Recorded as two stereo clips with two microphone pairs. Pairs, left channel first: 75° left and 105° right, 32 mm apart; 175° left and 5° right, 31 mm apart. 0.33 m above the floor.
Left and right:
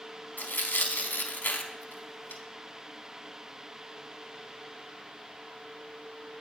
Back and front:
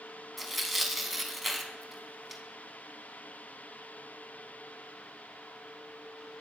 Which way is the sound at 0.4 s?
85° left.